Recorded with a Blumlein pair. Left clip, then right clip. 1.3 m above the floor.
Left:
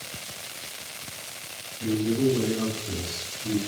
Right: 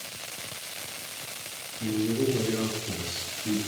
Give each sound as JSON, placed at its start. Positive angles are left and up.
{"t": 1.8, "sound": "a man speaking", "azimuth_deg": -5, "distance_m": 3.5}